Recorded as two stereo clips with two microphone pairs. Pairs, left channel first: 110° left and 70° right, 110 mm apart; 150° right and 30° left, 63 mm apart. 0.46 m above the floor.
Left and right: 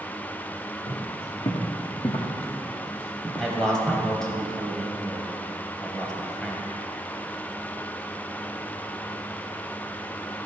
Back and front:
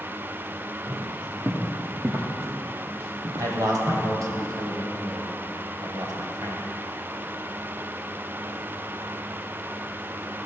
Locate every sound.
0.9 s footsteps: 90° left, 2.5 m; by 4.1 s 20° left, 2.5 m
3.4 s a man speaking: 30° left, 2 m